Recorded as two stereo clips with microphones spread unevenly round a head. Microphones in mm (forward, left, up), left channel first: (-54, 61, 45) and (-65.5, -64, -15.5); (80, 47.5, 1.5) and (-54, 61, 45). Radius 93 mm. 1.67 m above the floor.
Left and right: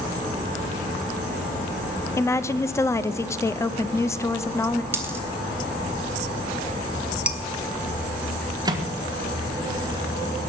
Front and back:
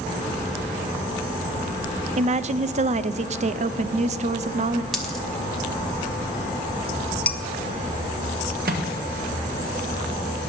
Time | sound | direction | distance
2.2 | a woman speaking | 145° left | 0.5 m
4.9 | a dropped coin | 140° left | 1.3 m
7.3 | dishes clattering | 110° left | 0.6 m
8.7 | a microwave | 160° right | 1.5 m